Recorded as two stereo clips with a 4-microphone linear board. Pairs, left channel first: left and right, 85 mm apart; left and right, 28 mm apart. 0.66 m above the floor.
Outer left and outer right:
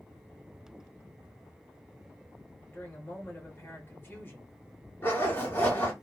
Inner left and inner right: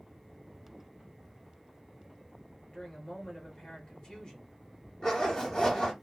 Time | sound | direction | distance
2.7 | a woman speaking | 30° left (ahead or behind) | 1.1 m
5.0 | a zipper | 30° left (ahead or behind) | 1.8 m